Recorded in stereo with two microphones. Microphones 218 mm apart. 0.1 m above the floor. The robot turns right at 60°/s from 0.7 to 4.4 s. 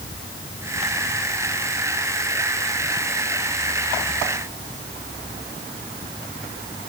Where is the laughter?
No laughter in this recording.